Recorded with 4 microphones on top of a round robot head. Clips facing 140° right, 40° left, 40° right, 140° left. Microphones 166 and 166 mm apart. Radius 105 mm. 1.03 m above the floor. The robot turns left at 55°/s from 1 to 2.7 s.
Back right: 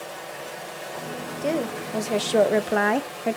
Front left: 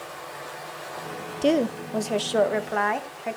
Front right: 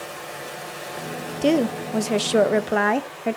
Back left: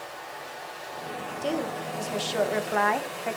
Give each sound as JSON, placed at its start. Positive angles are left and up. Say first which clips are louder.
{"t": 0.0, "sound": "running water", "louder": "back right 3 dB, front right 5 dB", "azimuth_deg": -75, "distance_m": 2.5}
{"t": 1.4, "sound": "a woman speaking", "louder": "front left 4 dB, front right 10 dB", "azimuth_deg": -20, "distance_m": 0.9}